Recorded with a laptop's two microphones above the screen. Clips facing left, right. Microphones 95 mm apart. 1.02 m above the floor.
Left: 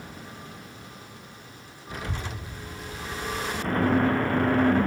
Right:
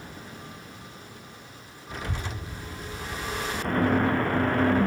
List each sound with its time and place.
1.9 s a child speaking: 5° left (ahead or behind), 0.9 m; by 4.5 s 65° right (ahead or behind), 3 m